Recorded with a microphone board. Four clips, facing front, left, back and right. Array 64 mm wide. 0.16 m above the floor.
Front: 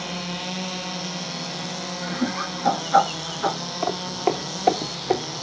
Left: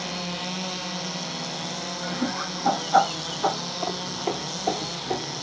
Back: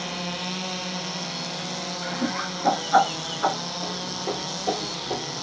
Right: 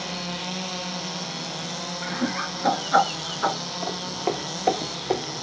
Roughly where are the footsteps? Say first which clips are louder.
Right 1 dB, front 10 dB; ahead.